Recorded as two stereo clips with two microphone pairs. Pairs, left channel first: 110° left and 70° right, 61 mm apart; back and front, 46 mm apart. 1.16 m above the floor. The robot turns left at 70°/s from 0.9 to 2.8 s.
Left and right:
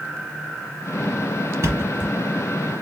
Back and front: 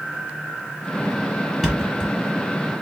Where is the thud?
95° right, 1.7 m; by 2.1 s 130° right, 1.7 m.